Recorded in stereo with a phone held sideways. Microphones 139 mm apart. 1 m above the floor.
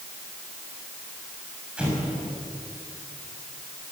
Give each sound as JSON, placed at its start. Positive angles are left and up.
{"t": 1.8, "sound": "an explosion", "side_deg": -5, "distance_m": 6.5}